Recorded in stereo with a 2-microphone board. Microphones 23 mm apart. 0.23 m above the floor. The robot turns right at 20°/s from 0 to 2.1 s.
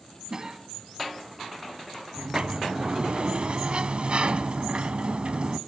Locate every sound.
0.3 s a cough: 35° right (ahead or behind), 2 m
2.2 s a sliding door: 55° right (ahead or behind), 0.5 m